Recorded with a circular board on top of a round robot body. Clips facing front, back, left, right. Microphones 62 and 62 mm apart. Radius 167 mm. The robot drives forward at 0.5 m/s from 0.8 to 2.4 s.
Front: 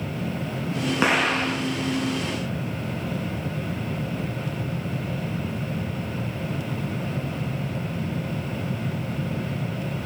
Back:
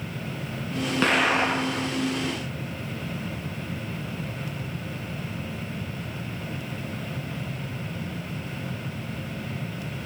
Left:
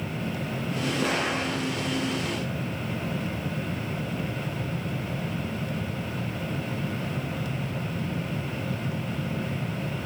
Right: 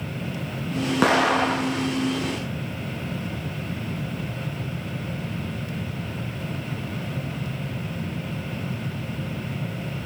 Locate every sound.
1.0 s an explosion: 75° right, 0.5 m; by 1.9 s 140° right, 0.6 m